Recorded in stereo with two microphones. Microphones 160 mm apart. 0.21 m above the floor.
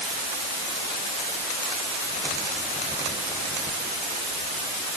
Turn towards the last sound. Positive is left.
No sound to turn to.